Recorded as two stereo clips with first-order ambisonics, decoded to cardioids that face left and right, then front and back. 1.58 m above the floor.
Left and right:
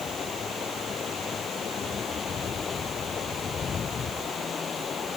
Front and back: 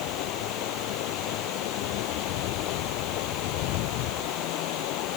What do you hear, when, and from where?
0.0 s running water: 25° left